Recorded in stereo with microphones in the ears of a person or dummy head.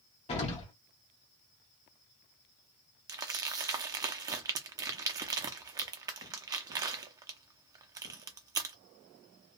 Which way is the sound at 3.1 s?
25° right (ahead or behind).